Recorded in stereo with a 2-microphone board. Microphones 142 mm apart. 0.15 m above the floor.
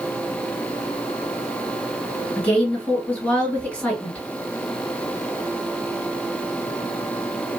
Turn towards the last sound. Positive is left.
turn(degrees=10)  # may be behind; listen again after turning